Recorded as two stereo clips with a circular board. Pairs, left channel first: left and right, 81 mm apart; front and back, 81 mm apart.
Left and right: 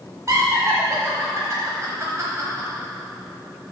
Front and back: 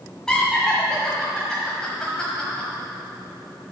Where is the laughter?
80° right, 1.2 m.